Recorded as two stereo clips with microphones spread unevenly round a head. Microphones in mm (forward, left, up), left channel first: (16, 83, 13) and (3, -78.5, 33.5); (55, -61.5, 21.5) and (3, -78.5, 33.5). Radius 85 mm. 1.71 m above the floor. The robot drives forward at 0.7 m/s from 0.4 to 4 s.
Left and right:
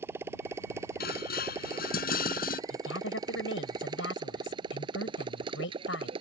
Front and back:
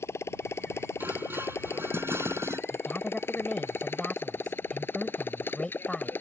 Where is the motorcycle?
20° right; by 6.2 s 35° right.